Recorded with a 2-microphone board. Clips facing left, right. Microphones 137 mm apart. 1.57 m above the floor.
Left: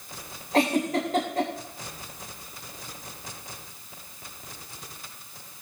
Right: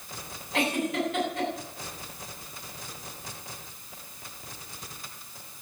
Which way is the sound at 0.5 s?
40° left (ahead or behind).